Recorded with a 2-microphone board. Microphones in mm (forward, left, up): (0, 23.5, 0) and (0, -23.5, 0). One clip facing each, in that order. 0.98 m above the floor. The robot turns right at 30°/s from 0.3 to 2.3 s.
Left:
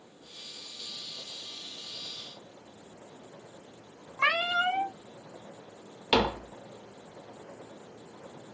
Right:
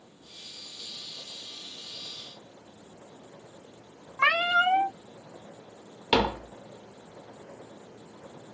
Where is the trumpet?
No trumpet in this recording.